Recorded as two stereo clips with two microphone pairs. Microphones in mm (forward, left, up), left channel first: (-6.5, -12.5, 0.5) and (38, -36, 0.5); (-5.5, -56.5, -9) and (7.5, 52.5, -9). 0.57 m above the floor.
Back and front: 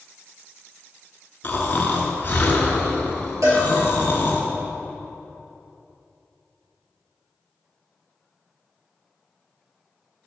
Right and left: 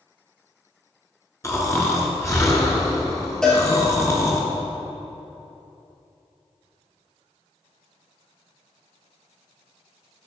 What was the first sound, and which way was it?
Snoring, 160° right.